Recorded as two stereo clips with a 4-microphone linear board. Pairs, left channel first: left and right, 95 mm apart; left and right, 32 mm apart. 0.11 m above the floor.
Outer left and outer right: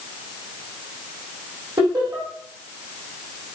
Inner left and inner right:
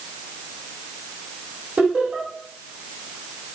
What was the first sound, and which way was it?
Laughter, 45° right (ahead or behind).